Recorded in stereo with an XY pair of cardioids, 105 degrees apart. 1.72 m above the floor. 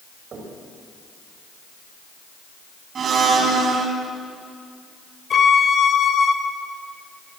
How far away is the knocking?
About 8 m.